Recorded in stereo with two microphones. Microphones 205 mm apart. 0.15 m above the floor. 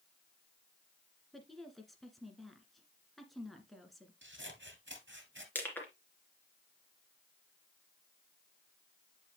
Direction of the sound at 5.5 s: 10° left (ahead or behind).